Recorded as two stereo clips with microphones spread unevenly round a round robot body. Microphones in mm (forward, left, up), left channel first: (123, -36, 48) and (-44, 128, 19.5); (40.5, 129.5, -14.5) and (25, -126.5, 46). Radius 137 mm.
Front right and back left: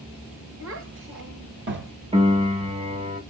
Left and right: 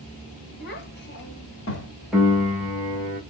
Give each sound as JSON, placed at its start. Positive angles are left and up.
{"t": 0.6, "sound": "a child speaking", "azimuth_deg": 130, "distance_m": 2.0}
{"t": 2.1, "sound": "a piano", "azimuth_deg": 155, "distance_m": 1.4}